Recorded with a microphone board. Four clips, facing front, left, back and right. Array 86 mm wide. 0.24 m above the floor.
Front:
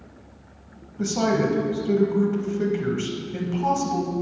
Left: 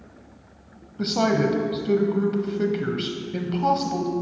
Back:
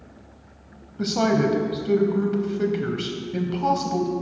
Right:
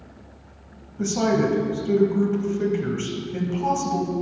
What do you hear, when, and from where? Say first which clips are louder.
1.0 s a woman speaking: even, back 1 dB; 120° left, 1.0 m